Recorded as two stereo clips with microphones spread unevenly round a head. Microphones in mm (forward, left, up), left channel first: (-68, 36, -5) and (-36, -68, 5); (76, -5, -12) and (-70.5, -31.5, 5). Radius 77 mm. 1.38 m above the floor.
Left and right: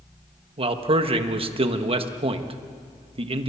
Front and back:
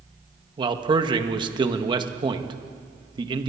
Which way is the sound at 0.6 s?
110° right.